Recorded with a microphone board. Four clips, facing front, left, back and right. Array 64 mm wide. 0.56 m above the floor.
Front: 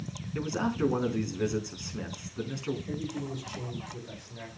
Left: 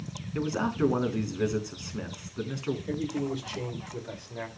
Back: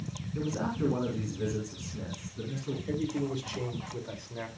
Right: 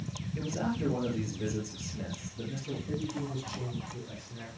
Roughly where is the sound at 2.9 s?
Behind left.